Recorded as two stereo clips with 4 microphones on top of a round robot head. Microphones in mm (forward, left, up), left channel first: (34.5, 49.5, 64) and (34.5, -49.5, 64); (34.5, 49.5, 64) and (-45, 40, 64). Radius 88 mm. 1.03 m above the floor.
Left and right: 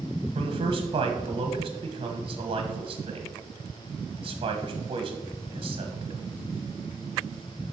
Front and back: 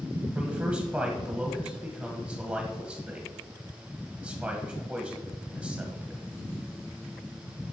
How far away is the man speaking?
About 1.2 m.